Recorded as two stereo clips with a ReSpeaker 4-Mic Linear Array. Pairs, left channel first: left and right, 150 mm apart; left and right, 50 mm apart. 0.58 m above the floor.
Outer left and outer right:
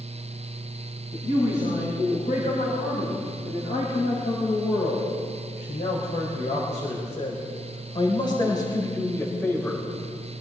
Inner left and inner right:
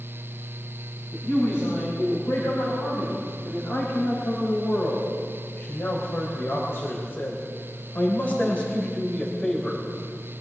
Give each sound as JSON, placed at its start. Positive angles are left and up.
{"t": 1.1, "sound": "a man speaking", "side_deg": 70, "distance_m": 6.0}